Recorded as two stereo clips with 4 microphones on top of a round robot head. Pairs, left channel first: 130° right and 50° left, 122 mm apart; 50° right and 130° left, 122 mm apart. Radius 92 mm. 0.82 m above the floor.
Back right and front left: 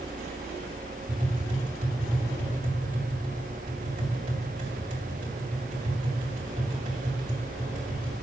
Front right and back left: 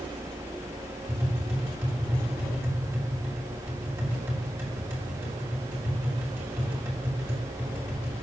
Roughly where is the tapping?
Ahead left.